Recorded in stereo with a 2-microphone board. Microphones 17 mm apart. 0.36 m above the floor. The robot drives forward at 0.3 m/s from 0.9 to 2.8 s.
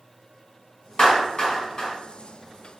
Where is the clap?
45° left (ahead or behind), 2.0 m; by 1.9 s 50° left (ahead or behind), 1.8 m.